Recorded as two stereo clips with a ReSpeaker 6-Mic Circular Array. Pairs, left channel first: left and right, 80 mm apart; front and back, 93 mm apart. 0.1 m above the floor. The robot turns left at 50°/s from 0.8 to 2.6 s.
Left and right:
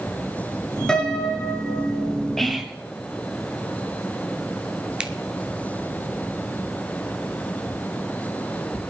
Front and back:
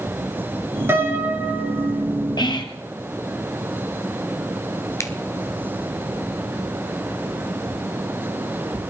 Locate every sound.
0.9 s a piano: 160° left, 1.7 m; by 2.0 s 105° left, 1.7 m
2.4 s whispering: 5° left, 1.7 m; by 2.8 s 5° right, 1.7 m
5.0 s a finger snap: 20° right, 1.0 m